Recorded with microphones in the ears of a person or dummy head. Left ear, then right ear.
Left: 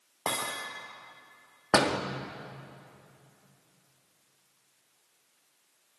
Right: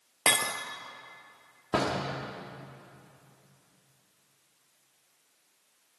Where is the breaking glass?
25° right (ahead or behind), 1.6 m.